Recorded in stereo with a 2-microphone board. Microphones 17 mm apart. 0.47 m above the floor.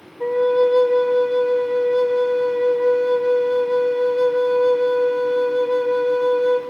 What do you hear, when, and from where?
0.2 s a flute: 20° left (ahead or behind), 0.7 m